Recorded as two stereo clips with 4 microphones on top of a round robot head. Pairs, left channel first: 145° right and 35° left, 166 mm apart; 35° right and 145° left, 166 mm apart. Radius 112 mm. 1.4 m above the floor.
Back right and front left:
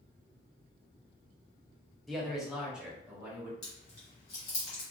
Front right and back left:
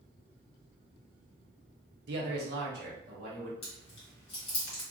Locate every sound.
2.1 s a man speaking: 125° left, 0.6 m; by 3.5 s 115° left, 1.6 m
3.6 s chewing: 85° right, 1.0 m